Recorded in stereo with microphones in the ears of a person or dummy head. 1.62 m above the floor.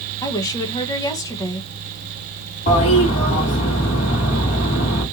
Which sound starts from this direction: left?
A toilet flushing, at 2.7 s.